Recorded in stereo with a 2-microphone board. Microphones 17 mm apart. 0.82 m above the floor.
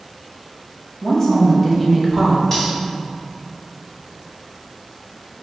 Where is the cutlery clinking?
25° left (ahead or behind), 1.6 m.